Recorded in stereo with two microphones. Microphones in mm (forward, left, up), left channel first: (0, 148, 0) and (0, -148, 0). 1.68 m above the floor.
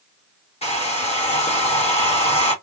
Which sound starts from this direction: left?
A hair dryer, at 0.6 s.